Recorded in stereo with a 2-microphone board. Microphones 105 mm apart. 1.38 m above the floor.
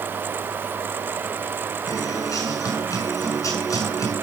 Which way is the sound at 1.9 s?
30° left (ahead or behind).